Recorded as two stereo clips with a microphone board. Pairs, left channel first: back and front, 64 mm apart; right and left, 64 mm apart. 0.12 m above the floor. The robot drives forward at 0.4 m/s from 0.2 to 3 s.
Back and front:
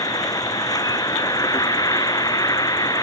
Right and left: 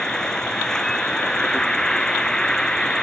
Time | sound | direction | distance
0.0 | an insect | 170° right | ?